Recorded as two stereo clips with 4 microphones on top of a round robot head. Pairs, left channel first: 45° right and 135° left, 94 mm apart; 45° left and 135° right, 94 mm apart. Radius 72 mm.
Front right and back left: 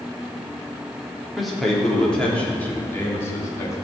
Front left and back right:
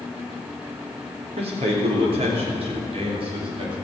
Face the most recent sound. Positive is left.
turn(degrees=-105)